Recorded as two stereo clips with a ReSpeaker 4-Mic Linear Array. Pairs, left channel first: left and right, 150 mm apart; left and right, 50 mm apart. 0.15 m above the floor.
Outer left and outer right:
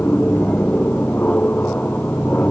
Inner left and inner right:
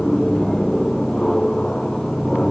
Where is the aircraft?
10° left (ahead or behind).